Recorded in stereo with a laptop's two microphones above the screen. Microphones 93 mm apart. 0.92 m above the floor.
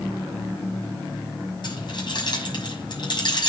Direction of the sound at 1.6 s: 55° left (ahead or behind).